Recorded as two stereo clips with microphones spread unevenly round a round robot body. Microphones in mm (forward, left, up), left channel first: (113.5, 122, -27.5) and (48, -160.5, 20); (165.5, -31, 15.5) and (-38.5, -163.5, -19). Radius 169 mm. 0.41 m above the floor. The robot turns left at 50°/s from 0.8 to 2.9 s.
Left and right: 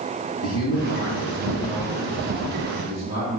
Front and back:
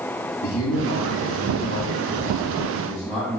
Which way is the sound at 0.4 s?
40° left.